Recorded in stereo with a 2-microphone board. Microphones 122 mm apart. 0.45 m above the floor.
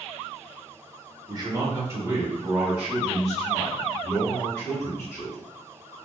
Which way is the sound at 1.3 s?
35° right (ahead or behind).